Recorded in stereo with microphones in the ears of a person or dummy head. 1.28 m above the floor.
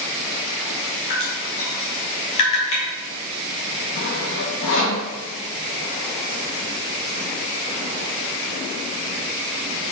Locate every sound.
1.1 s dripping: 35° left (ahead or behind), 1.2 m
4.0 s sawing: 70° left (ahead or behind), 1.2 m